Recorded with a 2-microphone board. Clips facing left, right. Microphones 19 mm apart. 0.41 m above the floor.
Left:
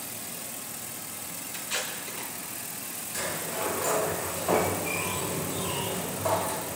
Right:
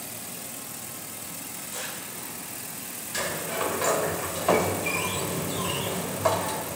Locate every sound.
1.5 s tape being pulled: 75° left (ahead or behind), 5.5 m
3.1 s a sliding door: 30° right (ahead or behind), 1.6 m